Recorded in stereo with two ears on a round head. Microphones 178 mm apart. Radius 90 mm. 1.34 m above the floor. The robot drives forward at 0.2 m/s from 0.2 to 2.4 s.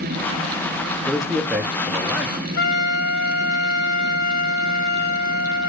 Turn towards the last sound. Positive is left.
turn(degrees=55)  # may be behind; listen again after turning